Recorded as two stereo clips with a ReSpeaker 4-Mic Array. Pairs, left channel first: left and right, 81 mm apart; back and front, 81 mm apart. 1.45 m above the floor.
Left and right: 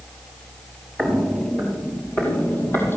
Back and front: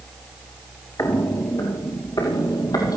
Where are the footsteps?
Straight behind, 1.8 m; by 3.0 s 150° left, 4 m.